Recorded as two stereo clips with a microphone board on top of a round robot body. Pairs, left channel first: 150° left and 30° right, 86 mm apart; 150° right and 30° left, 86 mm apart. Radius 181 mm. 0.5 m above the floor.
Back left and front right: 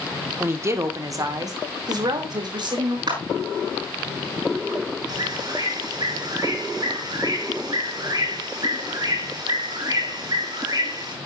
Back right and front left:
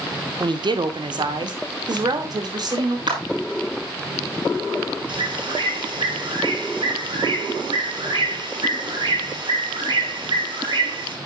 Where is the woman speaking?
30° left, 2 m; by 3.0 s 5° right, 4 m.